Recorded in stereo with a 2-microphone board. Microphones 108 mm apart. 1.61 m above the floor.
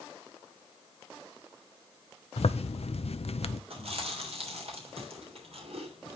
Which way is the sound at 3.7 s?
70° right (ahead or behind).